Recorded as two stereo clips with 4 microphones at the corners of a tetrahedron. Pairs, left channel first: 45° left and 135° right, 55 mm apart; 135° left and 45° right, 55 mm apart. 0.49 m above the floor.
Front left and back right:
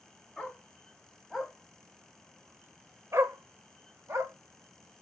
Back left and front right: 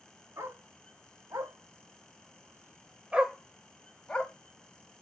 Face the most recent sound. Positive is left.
turn(degrees=-160)